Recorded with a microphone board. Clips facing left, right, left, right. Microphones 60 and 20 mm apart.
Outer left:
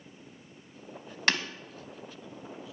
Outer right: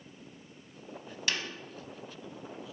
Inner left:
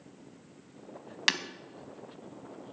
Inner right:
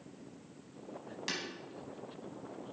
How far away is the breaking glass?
About 0.7 m.